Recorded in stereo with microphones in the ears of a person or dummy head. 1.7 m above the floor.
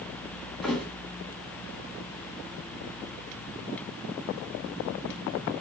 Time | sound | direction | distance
0.6 | a thud | 5° right (ahead or behind) | 2.0 m